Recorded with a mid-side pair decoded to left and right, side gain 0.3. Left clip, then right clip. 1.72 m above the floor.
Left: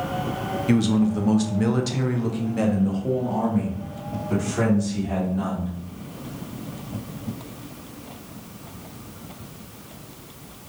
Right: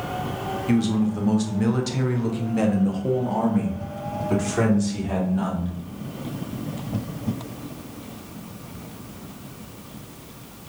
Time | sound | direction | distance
0.7 | a man speaking | 40° left | 1.3 m